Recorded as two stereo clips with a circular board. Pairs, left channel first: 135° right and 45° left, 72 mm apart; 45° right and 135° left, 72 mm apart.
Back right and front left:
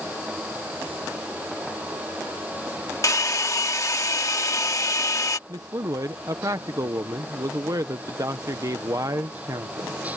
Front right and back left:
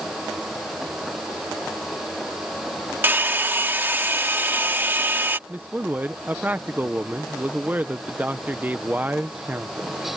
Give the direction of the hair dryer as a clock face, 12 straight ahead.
6 o'clock.